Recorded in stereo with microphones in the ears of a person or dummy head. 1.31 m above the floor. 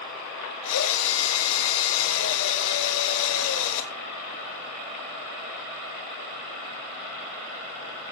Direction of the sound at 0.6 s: 75° left (ahead or behind).